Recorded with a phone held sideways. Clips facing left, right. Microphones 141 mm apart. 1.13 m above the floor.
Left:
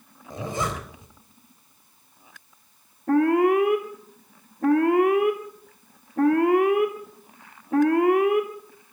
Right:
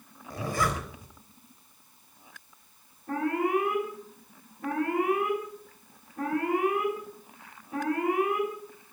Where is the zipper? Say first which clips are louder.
Left 1 dB; 20° left (ahead or behind), 3 m.